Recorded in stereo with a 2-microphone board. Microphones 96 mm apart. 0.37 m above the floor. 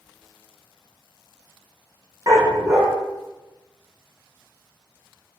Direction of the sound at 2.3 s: 40° right (ahead or behind).